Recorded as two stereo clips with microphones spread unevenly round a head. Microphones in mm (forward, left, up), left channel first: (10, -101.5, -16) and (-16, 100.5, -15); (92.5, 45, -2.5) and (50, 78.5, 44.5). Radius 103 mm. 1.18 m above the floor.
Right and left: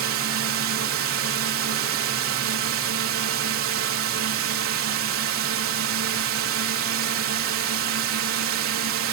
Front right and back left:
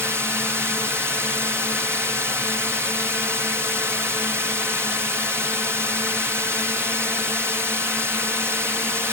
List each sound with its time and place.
0.0 s a drone: 75° left